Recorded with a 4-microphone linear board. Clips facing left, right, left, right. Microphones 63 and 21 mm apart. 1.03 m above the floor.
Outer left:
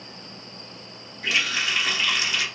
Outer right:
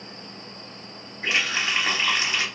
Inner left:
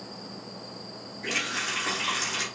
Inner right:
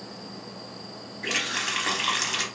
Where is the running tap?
30° right (ahead or behind), 0.8 m.